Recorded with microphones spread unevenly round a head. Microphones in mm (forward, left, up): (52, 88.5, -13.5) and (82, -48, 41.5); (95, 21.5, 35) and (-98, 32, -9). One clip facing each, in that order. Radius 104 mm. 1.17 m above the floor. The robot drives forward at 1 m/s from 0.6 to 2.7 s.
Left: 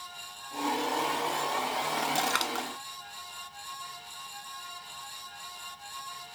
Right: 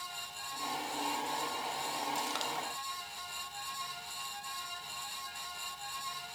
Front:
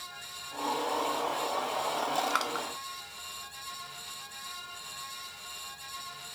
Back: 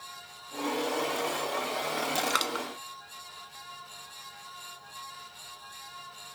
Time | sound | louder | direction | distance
2.3 | crushing | left 5 dB, back 1 dB | 135° left | ?